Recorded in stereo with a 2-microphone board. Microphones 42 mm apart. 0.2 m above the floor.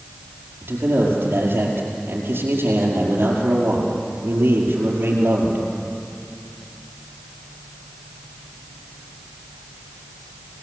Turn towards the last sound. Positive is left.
turn(degrees=-55)  # may be behind; listen again after turning